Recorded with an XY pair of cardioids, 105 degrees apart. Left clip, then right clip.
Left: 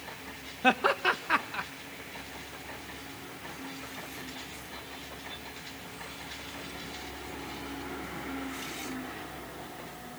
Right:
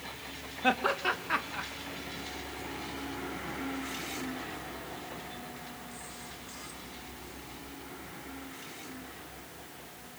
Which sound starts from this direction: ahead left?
Laughter, at 0.6 s.